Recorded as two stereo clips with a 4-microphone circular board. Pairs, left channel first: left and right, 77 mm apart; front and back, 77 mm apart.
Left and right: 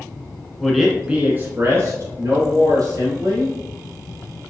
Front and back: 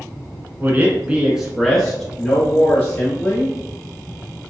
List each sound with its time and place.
0.6 s a man speaking: 170° left, 1.2 m; by 3.5 s 65° right, 2.5 m